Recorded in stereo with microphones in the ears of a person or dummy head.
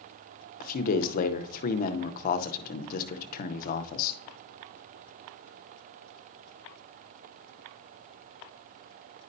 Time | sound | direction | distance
0.6 | a man speaking | 50° left (ahead or behind) | 0.6 m